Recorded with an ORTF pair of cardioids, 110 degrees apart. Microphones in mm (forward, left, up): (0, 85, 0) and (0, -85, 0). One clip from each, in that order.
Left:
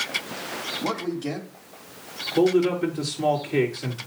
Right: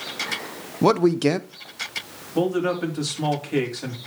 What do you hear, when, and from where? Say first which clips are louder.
0.8 s a man speaking: right 14 dB; 70° right, 0.7 m
2.4 s a man speaking: left 2 dB; 45° right, 3.5 m